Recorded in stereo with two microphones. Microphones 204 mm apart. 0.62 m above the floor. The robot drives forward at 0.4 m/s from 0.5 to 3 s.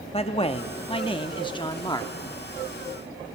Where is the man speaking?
25° left (ahead or behind), 0.8 m; by 2.1 s 20° left (ahead or behind), 1.1 m.